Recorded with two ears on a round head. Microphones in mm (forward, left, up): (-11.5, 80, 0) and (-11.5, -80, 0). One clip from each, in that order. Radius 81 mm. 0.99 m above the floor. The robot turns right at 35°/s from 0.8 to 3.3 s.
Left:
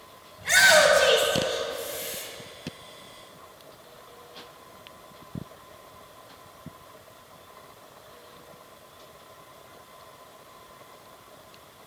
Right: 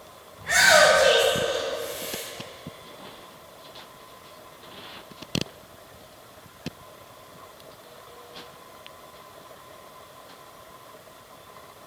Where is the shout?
70° left (ahead or behind), 4.5 m; by 2.2 s 60° left (ahead or behind), 4.5 m.